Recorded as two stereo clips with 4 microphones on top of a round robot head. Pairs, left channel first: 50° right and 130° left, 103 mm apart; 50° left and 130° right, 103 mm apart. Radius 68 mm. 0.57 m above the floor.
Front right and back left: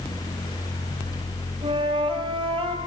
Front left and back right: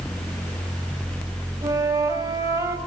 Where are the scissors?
No scissors in this recording.